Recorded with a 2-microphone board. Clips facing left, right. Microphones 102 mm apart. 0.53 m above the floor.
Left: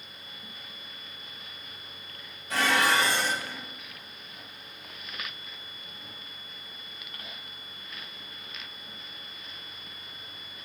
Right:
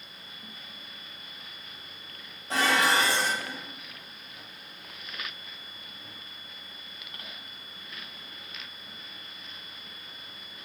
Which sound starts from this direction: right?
Dishes clattering, at 2.5 s.